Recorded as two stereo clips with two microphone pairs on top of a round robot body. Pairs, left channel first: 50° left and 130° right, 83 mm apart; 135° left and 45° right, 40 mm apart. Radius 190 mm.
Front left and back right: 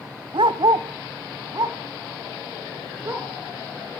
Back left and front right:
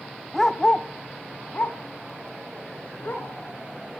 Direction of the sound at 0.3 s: 140° right.